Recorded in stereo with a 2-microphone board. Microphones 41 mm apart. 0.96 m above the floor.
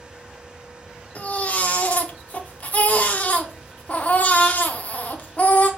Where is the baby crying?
45° left (ahead or behind), 0.6 m.